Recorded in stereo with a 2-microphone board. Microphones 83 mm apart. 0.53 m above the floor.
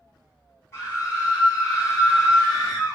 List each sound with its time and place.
0.7 s a scream: 35° left (ahead or behind), 1.5 m; by 3.0 s 15° left (ahead or behind), 1.8 m